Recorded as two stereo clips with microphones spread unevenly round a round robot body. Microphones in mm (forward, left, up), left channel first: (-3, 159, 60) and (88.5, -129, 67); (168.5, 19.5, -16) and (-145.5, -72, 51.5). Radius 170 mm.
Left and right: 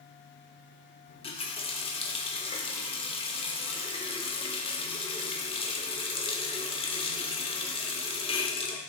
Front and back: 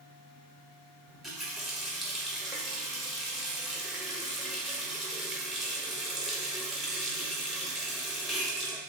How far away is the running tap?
About 0.6 m.